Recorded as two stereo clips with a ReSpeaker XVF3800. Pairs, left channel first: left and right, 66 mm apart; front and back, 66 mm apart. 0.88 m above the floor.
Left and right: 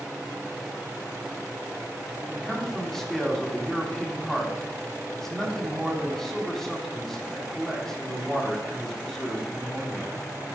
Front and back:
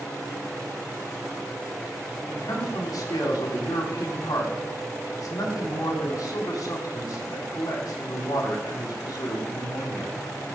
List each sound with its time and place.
2.3 s a man speaking: 5° left, 3 m